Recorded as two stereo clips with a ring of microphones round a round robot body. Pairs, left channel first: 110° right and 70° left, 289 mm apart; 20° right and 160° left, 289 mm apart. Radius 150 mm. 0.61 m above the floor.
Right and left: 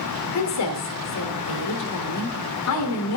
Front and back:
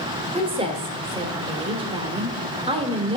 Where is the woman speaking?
135° right, 2 m.